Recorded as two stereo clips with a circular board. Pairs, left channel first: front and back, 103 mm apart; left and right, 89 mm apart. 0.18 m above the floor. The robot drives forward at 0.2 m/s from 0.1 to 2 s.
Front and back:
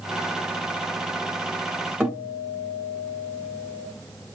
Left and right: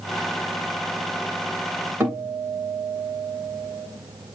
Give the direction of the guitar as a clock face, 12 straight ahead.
4 o'clock.